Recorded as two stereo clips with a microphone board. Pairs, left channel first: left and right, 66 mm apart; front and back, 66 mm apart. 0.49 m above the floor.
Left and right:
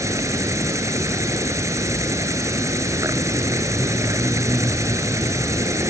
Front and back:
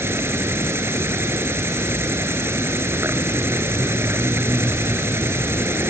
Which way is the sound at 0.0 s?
130° right.